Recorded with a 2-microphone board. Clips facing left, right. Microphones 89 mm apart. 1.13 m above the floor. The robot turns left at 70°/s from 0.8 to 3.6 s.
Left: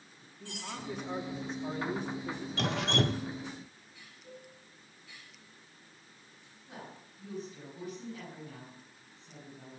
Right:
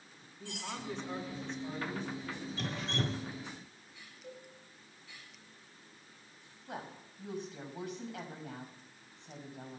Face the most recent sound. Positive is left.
turn(degrees=-75)  # may be behind; listen again after turning